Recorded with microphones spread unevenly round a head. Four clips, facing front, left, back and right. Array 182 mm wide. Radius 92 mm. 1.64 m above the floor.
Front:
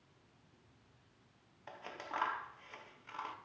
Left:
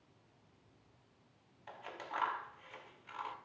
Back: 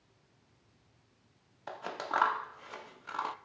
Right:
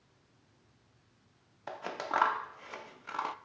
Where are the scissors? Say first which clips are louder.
Right 10 dB, back 9 dB; 125° right, 1.2 m.